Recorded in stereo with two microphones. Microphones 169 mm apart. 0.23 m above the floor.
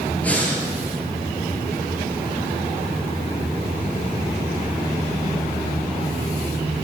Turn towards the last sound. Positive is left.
turn(degrees=10)  # may be behind; listen again after turning